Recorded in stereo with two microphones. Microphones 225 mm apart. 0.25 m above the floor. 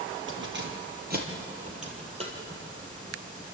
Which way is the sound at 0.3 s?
55° right (ahead or behind).